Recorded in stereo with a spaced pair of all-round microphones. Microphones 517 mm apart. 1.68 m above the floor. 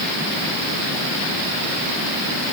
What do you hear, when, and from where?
Only background noise.